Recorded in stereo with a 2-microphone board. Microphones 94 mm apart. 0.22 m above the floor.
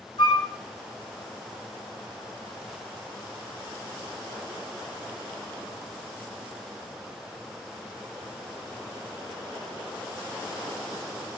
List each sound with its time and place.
0.2 s a flute: 70° left (ahead or behind), 0.7 m